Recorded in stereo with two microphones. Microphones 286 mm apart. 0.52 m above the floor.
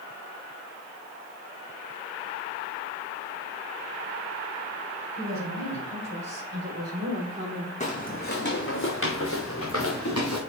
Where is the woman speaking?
70° right (ahead or behind), 2.5 m; by 7.7 s 35° right (ahead or behind), 1.2 m.